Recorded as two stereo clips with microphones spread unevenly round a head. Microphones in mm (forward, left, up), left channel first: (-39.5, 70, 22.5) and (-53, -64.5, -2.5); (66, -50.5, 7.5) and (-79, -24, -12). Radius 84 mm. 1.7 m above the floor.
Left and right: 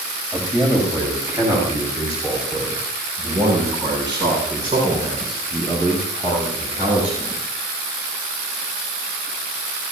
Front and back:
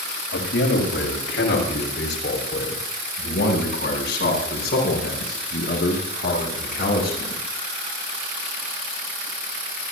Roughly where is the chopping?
I don't hear chopping.